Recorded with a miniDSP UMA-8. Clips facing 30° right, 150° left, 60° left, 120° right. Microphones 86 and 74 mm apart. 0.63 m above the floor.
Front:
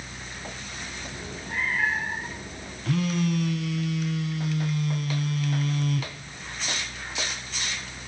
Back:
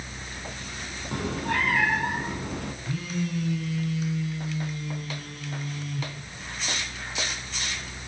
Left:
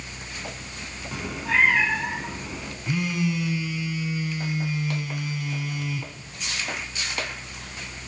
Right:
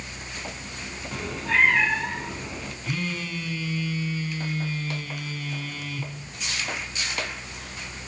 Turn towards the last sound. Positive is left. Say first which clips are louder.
# front 8 dB, left 6 dB
turn(degrees=-15)